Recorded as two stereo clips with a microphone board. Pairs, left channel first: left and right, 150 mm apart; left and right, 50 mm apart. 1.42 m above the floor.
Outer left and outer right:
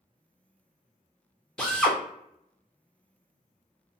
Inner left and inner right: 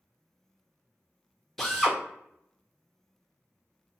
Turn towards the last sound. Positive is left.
turn(degrees=5)  # may be behind; listen again after turning